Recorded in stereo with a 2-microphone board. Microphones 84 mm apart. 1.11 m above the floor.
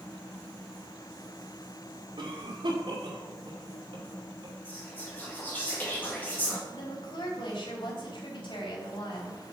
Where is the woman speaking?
75° left (ahead or behind), 3.5 m.